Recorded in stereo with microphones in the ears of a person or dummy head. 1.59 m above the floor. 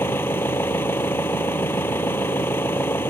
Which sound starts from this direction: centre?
An engine running, at 0.0 s.